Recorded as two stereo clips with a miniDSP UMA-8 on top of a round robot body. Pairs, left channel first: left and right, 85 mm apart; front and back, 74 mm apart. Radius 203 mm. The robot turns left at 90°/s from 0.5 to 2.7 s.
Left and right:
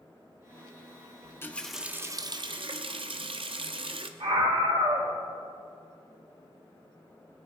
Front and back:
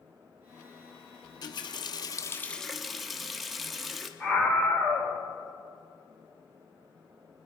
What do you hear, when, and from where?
1.2 s a running tap: 40° left, 1.0 m; by 4.1 s 90° right, 1.0 m
4.2 s a scream: 75° right, 2.5 m